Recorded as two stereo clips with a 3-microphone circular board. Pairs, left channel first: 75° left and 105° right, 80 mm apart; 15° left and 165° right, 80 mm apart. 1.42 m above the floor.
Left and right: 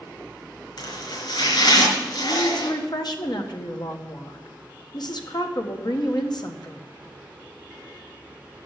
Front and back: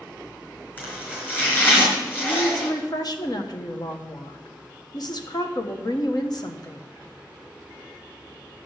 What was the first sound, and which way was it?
Chopping, 80° left.